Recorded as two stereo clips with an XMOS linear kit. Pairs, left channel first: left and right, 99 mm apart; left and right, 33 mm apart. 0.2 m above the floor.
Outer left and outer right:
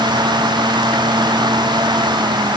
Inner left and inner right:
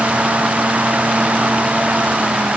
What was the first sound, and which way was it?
Only background noise.